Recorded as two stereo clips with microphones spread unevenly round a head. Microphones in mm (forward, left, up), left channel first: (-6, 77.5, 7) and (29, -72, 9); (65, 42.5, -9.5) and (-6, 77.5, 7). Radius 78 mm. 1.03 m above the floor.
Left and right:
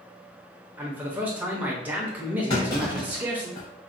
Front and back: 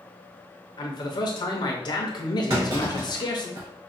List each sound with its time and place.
0.8 s a man speaking: 5° left, 0.6 m
2.5 s a clunk: 165° left, 1.5 m